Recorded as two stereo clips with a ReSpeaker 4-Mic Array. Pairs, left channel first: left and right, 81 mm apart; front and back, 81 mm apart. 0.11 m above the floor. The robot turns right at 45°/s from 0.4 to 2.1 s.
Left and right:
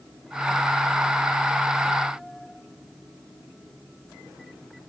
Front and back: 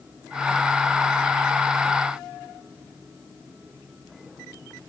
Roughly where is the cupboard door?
I don't hear a cupboard door.